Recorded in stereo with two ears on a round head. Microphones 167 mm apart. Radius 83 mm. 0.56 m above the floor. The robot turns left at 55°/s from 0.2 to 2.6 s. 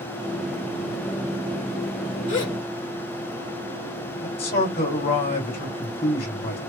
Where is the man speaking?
55° left (ahead or behind), 2.0 m.